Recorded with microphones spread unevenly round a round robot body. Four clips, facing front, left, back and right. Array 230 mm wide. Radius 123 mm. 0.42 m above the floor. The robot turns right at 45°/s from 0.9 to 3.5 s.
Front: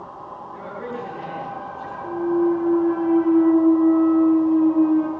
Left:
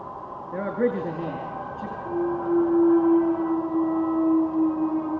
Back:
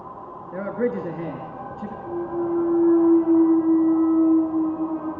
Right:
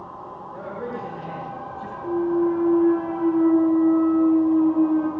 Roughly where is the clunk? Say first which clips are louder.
Right 4 dB, front 6 dB; right.